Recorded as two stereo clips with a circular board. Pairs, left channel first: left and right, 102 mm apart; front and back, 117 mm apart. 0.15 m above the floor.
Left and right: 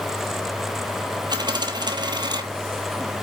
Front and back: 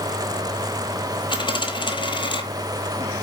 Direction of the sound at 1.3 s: 45° right.